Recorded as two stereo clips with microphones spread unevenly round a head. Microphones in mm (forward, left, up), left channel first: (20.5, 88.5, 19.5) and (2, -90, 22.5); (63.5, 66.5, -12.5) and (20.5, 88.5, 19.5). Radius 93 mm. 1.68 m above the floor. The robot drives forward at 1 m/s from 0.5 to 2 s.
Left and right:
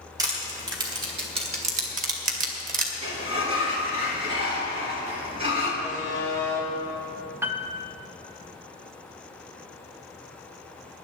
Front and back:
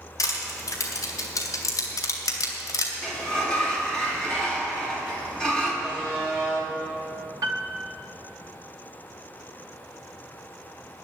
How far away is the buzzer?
About 5.5 m.